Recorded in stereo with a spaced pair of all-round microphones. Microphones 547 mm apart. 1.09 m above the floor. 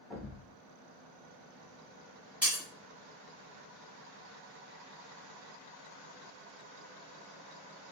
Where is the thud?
Centre (ahead or behind), 1.3 m.